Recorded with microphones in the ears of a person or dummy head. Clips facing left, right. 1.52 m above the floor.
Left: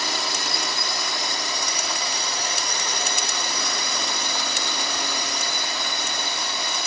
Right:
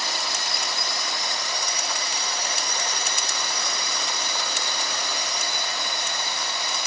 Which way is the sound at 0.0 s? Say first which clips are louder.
Left 3 dB; 65° left (ahead or behind).